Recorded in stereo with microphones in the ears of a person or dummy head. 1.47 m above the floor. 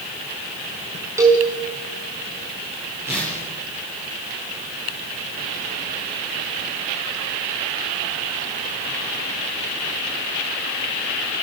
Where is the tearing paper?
10° right (ahead or behind), 8.5 m.